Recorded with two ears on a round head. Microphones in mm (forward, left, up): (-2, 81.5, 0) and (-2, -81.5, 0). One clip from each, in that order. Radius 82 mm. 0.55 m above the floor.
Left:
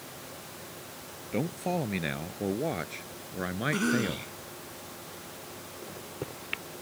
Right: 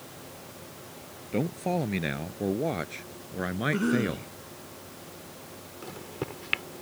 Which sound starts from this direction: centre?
A man speaking, at 1.3 s.